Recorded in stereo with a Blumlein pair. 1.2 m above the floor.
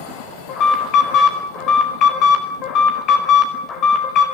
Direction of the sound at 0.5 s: 35° left.